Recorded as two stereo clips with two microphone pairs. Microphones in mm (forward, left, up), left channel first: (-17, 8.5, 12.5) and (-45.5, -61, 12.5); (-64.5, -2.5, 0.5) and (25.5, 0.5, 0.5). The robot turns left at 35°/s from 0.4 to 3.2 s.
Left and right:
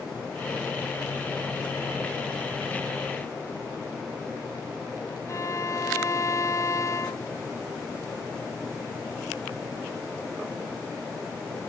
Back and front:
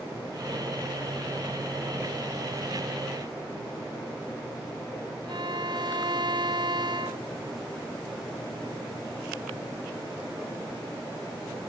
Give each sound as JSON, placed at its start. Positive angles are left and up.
{"t": 5.3, "sound": "a violin", "azimuth_deg": 25}